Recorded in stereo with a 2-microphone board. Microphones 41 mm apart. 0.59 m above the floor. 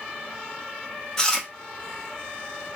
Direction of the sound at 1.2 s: 15° left (ahead or behind).